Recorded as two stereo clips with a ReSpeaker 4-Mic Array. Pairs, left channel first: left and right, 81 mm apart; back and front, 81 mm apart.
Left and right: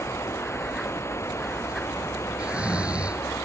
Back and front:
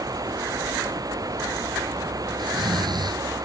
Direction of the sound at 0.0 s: 35° left.